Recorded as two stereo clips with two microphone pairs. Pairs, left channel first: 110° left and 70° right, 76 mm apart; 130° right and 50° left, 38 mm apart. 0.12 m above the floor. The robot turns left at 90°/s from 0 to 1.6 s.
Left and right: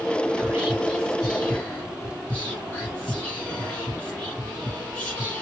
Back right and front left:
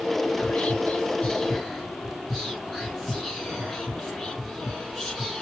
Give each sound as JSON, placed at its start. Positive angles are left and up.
{"t": 0.4, "sound": "whispering", "azimuth_deg": -100, "distance_m": 1.2}